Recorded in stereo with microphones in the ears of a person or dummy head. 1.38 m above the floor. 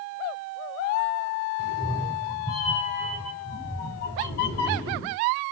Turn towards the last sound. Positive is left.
turn(degrees=55)  # may be behind; listen again after turning